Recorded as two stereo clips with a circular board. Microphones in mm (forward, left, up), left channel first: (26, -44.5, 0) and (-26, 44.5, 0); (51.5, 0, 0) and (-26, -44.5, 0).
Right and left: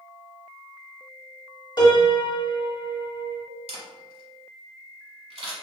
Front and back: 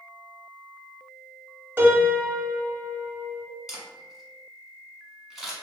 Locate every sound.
1.8 s a piano: 85° right, 0.8 m
3.7 s a camera shutter: 125° left, 1.0 m